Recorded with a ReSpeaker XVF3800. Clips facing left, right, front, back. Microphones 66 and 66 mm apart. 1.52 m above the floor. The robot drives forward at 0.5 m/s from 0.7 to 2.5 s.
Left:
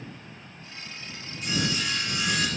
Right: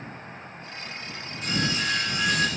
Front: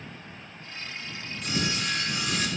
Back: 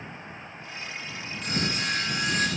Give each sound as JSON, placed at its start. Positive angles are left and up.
{"t": 1.4, "sound": "sawing", "azimuth_deg": -135, "distance_m": 9.0}